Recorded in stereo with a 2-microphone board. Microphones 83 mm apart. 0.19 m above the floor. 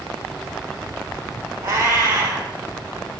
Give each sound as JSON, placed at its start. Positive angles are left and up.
{"t": 1.6, "sound": "a cat meowing", "side_deg": -30, "distance_m": 2.0}